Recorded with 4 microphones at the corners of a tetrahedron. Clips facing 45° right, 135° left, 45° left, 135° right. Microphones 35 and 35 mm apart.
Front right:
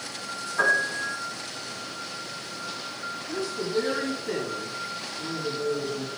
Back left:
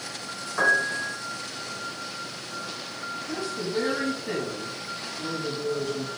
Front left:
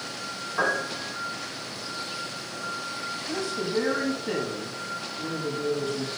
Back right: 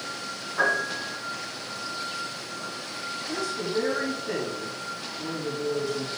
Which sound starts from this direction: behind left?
A piano, at 0.6 s.